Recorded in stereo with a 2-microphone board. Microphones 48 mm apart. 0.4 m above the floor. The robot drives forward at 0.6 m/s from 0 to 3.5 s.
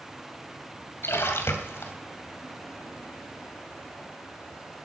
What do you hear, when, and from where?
1.0 s a splash: 65° left (ahead or behind), 2 m; by 1.9 s 60° left (ahead or behind), 2.5 m